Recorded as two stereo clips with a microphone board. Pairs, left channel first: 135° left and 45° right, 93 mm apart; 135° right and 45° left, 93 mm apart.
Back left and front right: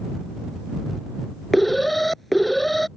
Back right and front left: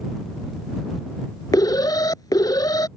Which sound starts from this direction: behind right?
An alarm, at 1.5 s.